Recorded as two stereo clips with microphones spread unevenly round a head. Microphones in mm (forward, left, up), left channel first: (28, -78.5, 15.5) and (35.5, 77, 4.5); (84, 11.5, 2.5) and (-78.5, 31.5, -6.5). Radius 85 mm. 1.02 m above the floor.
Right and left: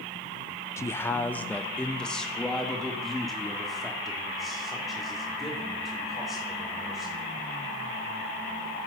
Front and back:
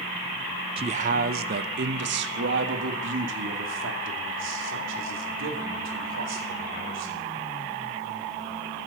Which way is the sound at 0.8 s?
160° right.